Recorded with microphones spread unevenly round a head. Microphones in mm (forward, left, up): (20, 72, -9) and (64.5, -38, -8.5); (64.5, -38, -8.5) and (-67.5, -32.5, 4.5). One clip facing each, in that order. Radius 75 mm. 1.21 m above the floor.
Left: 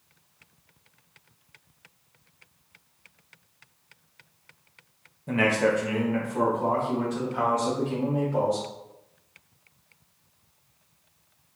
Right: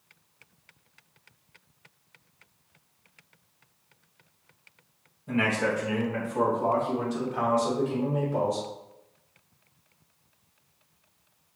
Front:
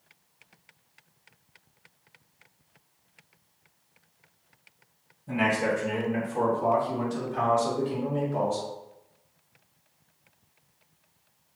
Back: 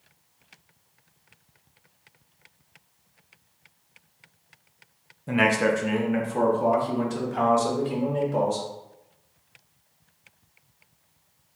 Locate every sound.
5.3 s a man speaking: 165° left, 1.0 m; by 8.7 s 150° right, 3 m